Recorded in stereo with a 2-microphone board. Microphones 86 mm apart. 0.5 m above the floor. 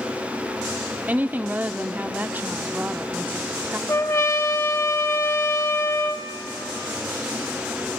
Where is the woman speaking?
20° right (ahead or behind), 0.8 m.